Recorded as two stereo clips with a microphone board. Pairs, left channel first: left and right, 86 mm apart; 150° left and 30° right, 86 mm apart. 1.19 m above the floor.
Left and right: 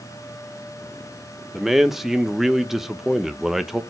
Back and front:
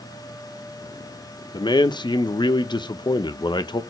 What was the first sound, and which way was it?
A man speaking, 175° right.